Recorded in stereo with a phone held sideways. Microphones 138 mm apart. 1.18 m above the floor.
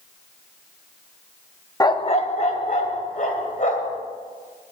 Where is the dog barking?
25° left (ahead or behind), 0.6 m; by 4.0 s 70° left (ahead or behind), 3 m.